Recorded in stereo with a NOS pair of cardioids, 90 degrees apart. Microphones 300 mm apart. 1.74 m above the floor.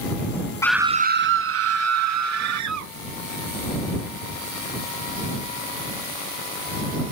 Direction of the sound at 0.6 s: 10° left.